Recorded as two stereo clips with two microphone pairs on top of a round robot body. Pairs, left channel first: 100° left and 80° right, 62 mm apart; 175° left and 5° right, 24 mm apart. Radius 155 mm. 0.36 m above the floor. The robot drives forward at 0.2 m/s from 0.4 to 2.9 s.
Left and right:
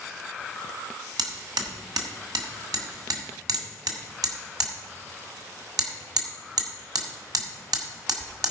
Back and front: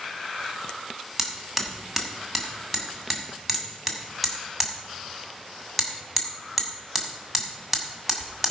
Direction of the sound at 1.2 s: 85° right.